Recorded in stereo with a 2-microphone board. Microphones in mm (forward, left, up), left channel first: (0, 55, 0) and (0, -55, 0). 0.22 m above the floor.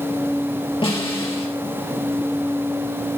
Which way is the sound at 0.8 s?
55° left (ahead or behind).